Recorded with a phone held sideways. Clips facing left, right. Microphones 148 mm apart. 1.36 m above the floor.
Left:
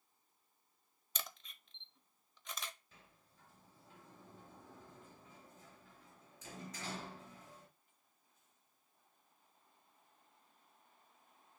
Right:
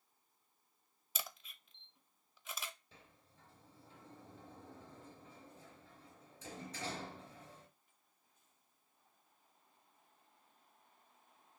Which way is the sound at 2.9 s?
30° right (ahead or behind).